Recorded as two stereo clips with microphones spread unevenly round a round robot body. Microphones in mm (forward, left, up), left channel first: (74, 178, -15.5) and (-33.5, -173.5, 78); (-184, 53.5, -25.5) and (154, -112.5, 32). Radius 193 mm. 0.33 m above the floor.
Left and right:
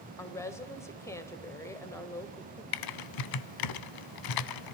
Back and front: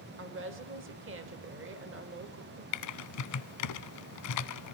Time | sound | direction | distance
0.2 | a woman speaking | 20° left | 1.4 m
2.7 | typing on a keyboard | 105° left | 0.7 m